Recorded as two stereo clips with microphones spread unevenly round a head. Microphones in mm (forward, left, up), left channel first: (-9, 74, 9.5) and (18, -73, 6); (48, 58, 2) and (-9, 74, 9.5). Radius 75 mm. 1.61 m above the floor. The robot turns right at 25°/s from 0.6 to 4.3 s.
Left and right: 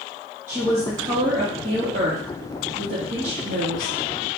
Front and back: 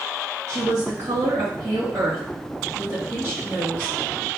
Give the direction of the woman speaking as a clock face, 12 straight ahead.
5 o'clock.